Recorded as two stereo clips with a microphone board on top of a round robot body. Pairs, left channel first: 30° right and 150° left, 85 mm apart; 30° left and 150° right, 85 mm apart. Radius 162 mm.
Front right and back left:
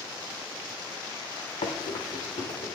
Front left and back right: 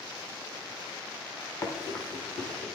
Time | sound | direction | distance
1.6 | running footsteps | 25° right | 0.9 m